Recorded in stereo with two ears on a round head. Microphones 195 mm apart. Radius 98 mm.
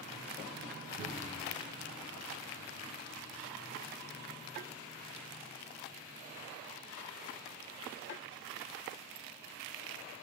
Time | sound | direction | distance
1.0 | a cupboard door | 20° right (ahead or behind) | 6.5 m